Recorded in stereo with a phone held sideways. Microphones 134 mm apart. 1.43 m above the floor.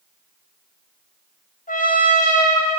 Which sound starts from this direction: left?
A trumpet, at 1.7 s.